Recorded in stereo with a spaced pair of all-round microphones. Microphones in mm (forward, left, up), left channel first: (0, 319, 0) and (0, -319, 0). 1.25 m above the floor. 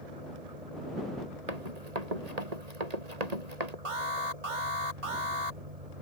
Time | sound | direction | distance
0.0 | an engine running | 70° right (ahead or behind) | ?
1.5 | running footsteps | 80° right | ?
3.9 | an alarm | 55° right (ahead or behind) | ?